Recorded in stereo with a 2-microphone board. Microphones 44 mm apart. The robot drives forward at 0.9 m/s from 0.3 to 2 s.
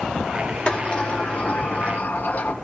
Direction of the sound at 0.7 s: 25° left (ahead or behind).